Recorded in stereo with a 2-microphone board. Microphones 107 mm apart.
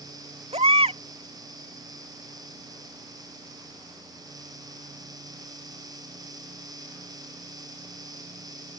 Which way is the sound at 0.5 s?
80° right.